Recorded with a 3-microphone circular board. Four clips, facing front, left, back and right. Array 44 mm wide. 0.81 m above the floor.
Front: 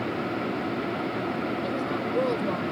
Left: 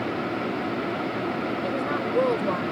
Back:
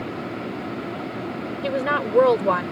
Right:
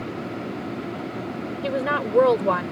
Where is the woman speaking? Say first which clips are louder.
Right 2 dB, back 5 dB; 145° right.